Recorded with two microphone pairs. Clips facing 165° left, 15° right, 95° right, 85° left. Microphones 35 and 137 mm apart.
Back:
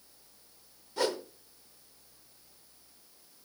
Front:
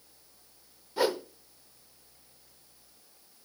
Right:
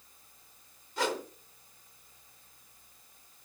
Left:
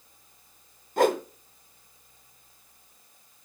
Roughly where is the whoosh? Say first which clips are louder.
Front 3 dB, left 10 dB; ahead left.